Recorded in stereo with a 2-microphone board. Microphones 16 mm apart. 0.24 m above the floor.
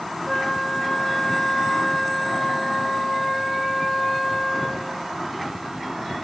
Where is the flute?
40° left (ahead or behind), 0.6 m.